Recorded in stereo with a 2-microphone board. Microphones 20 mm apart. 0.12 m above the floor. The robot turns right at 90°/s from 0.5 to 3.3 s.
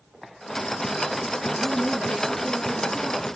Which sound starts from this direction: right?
A woman speaking, at 1.6 s.